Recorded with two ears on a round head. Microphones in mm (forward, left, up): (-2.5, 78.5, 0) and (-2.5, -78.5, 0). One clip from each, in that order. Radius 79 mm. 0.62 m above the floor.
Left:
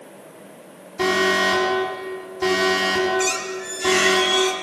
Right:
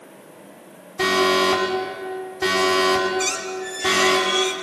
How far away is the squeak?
About 3 m.